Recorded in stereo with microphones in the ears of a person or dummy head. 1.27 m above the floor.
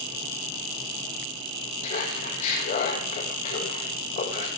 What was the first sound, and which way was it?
Laughter, 45° left (ahead or behind).